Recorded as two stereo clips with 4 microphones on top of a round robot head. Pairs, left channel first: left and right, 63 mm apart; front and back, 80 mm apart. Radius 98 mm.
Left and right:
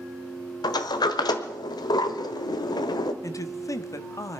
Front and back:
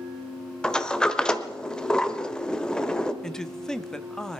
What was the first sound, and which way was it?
A sliding door, 80° left.